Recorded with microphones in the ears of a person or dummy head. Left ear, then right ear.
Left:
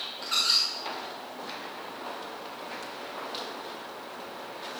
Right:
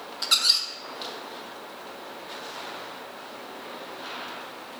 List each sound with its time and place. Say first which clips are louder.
0.2 s a squeak: right 3 dB; 40° right (ahead or behind), 1.2 m